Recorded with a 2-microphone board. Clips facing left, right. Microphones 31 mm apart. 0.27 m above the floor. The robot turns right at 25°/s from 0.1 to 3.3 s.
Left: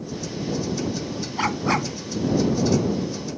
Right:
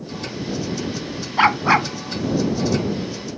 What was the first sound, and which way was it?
A dog barking, 45° right (ahead or behind).